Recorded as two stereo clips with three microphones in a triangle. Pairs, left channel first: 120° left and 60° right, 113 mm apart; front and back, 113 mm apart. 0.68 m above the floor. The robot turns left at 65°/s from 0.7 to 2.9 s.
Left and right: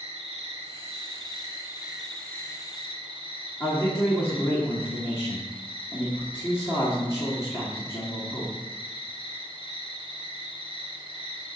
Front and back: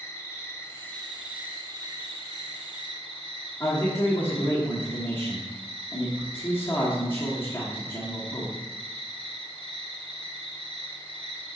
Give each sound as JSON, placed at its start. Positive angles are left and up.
{"t": 0.0, "sound": "an insect", "azimuth_deg": -65, "distance_m": 1.2}
{"t": 3.6, "sound": "a man speaking", "azimuth_deg": 65, "distance_m": 1.4}